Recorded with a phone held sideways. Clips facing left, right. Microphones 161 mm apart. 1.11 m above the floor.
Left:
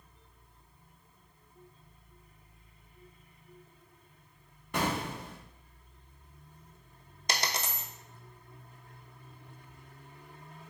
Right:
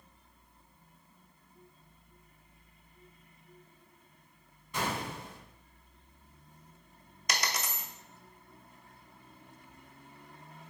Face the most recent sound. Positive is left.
turn(degrees=30)  # may be behind; listen again after turning